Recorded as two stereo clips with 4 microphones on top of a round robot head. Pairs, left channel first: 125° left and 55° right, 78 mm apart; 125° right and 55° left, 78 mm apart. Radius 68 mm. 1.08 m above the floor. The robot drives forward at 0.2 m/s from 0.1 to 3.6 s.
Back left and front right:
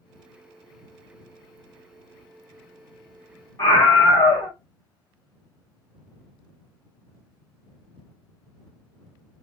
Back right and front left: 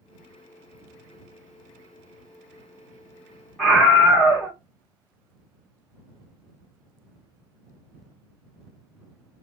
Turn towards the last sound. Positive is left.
turn(degrees=160)